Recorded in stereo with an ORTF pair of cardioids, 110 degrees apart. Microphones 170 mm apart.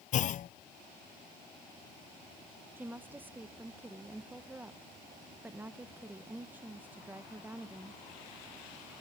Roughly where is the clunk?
Ahead left.